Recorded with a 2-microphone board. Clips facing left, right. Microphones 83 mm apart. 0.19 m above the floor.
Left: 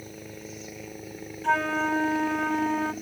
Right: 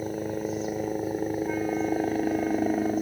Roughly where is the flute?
Left.